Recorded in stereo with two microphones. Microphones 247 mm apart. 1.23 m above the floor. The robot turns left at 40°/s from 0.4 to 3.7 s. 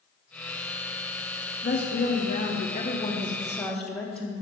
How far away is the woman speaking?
About 0.6 m.